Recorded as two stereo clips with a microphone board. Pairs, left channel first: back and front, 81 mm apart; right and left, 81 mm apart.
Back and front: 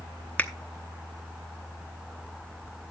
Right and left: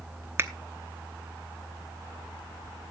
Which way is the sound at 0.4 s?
125° left.